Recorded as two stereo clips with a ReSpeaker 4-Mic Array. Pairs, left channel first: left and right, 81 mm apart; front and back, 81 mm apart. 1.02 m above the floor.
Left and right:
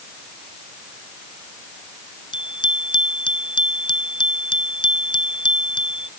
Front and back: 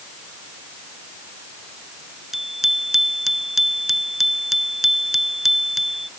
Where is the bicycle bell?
95° left.